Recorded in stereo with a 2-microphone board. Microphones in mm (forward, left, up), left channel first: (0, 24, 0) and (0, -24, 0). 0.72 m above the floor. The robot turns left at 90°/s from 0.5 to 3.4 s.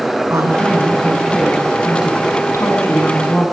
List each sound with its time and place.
0.3 s a woman speaking: 100° right, 8 m; by 3.4 s straight ahead, 8 m